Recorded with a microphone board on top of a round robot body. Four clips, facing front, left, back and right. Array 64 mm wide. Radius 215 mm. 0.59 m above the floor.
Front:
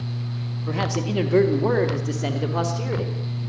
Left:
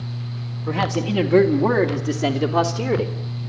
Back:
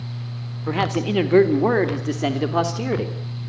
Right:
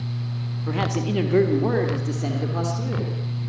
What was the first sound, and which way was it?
A man speaking, straight behind.